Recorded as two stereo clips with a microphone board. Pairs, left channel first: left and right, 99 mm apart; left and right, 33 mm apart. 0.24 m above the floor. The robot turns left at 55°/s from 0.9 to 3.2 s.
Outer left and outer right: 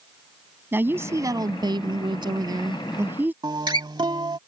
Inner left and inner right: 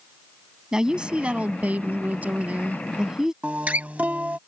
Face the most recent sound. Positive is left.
turn(degrees=-45)  # may be behind; listen again after turning